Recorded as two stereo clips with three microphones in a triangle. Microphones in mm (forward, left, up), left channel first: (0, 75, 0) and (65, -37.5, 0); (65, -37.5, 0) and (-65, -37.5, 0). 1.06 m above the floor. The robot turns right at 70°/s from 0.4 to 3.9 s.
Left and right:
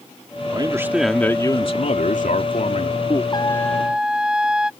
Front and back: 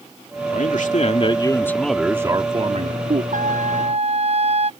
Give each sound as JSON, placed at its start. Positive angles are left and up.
{"t": 0.5, "sound": "a man speaking", "azimuth_deg": -10}
{"t": 3.3, "sound": "a trumpet", "azimuth_deg": 175}